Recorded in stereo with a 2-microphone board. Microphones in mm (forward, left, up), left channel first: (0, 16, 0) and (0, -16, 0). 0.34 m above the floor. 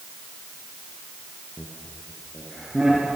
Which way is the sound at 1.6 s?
25° right (ahead or behind).